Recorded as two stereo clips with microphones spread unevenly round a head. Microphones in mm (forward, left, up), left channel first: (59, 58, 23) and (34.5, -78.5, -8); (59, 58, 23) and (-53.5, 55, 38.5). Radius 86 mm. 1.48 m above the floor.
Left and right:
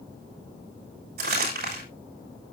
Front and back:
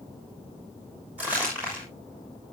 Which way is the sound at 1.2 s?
95° right.